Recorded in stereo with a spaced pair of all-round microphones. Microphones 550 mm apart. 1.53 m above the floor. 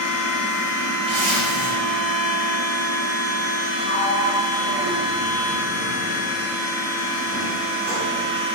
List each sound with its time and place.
0.0 s a machine running: 30° right (ahead or behind), 0.8 m
1.1 s a zipper: 25° right (ahead or behind), 1.8 m
3.8 s a sliding door: 30° right (ahead or behind), 1.3 m